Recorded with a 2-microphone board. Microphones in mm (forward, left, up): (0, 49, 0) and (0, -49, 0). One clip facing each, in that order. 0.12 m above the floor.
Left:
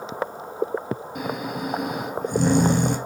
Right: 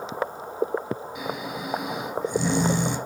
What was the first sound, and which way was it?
Snoring, 55° left (ahead or behind).